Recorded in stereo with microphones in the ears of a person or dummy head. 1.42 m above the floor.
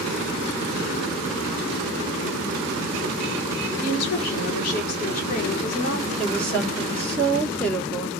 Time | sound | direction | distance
3.8 | a woman speaking | 45° left (ahead or behind) | 1.0 m
6.2 | a woman speaking | 5° left (ahead or behind) | 1.6 m